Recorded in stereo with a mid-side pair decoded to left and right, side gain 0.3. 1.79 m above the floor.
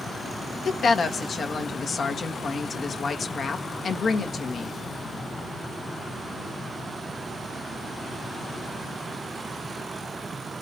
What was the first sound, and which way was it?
A woman speaking, 65° left.